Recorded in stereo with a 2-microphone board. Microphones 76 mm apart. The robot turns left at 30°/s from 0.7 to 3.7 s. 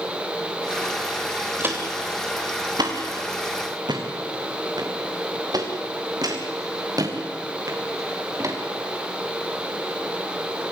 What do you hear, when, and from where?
1.6 s footsteps: 30° right (ahead or behind), 5 m; by 8.6 s 45° right (ahead or behind), 5.5 m